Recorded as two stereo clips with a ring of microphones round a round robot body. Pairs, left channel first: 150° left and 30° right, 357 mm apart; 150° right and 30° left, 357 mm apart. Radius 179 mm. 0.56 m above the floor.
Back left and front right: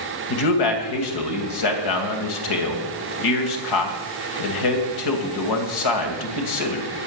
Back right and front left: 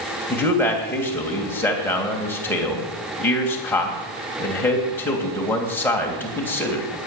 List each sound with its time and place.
0.3 s a man speaking: 125° left, 3 m